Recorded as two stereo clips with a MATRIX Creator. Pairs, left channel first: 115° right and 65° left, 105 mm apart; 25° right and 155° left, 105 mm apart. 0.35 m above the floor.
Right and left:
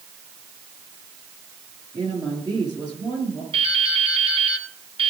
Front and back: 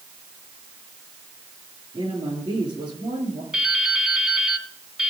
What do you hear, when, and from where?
1.9 s a woman speaking: 115° left, 7 m
3.5 s dripping: 75° left, 2.0 m